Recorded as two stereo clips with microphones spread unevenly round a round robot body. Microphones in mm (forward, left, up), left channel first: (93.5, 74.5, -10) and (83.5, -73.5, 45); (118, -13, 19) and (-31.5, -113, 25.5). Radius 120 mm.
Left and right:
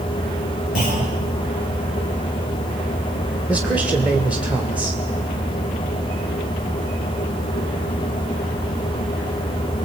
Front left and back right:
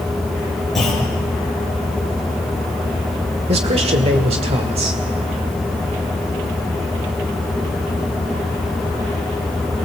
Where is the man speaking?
165° left, 1.7 m.